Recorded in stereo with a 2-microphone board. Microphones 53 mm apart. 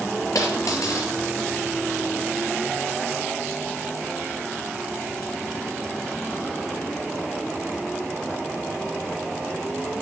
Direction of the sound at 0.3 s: 80° left.